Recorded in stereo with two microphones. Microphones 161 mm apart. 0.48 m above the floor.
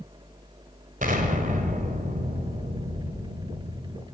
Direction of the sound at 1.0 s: 55° right (ahead or behind).